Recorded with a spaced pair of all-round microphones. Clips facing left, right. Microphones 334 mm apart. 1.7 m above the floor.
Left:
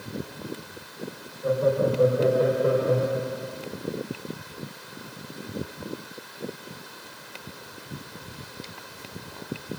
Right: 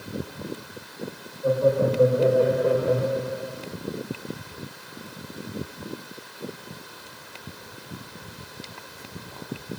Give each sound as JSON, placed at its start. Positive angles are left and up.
{"t": 1.4, "sound": "laughter", "side_deg": 30, "distance_m": 7.5}